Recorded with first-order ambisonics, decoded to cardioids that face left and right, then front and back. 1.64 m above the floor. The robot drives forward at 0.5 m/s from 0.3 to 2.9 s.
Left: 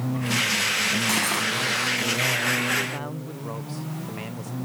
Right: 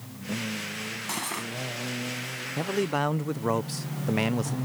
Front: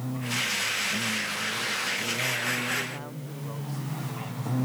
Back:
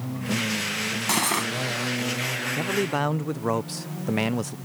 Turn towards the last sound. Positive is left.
turn(degrees=-150)